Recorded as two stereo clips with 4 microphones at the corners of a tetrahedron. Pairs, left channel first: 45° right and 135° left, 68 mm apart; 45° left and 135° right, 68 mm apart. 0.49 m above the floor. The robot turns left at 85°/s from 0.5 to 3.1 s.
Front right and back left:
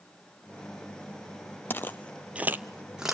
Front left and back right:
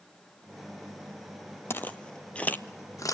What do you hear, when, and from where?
1.7 s footsteps: 10° left, 0.7 m; by 3.1 s 50° left, 1.2 m